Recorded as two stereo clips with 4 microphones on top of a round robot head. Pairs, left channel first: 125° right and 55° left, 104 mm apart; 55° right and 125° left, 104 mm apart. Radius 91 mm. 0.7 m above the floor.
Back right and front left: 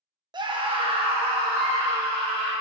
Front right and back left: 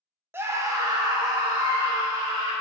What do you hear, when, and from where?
0.3 s a scream: 65° left, 1.0 m; by 2.5 s 80° left, 3.5 m